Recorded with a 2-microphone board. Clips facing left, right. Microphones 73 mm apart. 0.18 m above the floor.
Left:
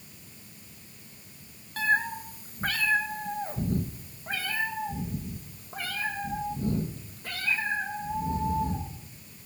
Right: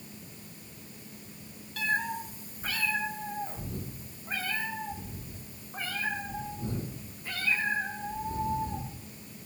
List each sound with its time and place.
1.8 s a cat meowing: 40° left (ahead or behind), 1.3 m; by 8.9 s 60° left (ahead or behind), 5 m